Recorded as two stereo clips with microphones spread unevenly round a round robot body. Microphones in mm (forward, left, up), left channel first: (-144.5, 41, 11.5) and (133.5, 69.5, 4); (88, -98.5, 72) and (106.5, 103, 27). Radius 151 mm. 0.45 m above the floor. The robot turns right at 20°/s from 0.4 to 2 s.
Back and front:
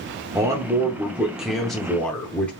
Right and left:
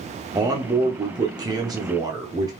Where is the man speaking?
70° left, 0.8 m; by 2.5 s 100° left, 0.8 m.